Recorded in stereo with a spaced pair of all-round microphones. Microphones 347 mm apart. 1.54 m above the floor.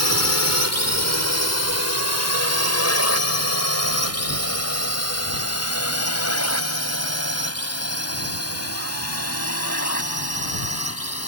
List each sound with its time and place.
0.0 s a drone: 45° left (ahead or behind); by 11.3 s 40° left (ahead or behind)